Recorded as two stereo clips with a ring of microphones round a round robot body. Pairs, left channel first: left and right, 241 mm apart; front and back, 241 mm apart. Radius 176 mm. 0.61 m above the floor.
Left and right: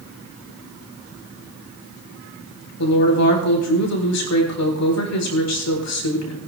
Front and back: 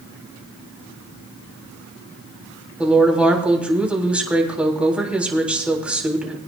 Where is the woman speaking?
95° left, 3.5 m.